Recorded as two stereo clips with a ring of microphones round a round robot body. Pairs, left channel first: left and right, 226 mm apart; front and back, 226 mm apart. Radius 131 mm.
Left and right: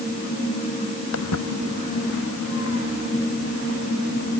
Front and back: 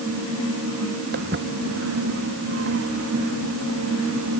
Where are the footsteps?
125° left; by 4.4 s 140° left.